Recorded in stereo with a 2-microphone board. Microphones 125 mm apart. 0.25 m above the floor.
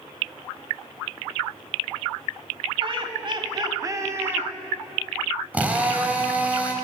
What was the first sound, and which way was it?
Laughter, 45° right (ahead or behind).